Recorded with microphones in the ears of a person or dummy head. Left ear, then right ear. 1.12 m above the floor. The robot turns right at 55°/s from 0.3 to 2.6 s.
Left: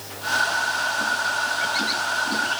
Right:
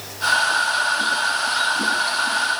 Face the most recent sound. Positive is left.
No sound to turn to.